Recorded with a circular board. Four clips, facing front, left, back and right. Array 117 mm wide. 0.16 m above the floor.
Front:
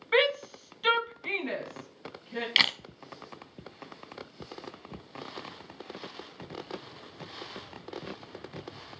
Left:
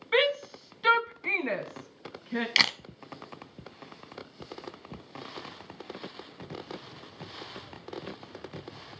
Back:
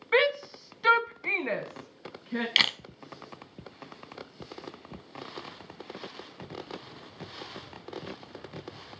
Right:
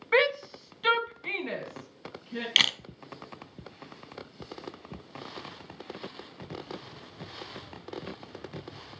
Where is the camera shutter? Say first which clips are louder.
Right 1 dB, even; 85° left, 0.7 m.